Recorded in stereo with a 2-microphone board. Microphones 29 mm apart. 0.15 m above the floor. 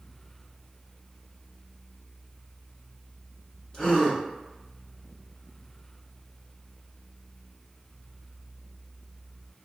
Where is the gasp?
30° left (ahead or behind), 1.8 m.